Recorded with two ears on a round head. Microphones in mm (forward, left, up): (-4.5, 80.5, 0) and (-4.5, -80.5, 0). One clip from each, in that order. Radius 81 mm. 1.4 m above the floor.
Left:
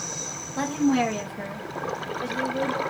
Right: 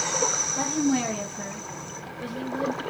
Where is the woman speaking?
35° left (ahead or behind), 1.2 m; by 2.8 s 75° left (ahead or behind), 2.0 m.